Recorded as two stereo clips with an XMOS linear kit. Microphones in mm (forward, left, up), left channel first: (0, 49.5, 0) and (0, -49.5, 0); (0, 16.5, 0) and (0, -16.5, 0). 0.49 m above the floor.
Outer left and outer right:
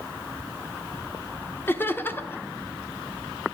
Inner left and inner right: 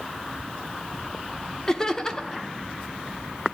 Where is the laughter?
20° left (ahead or behind), 0.8 m.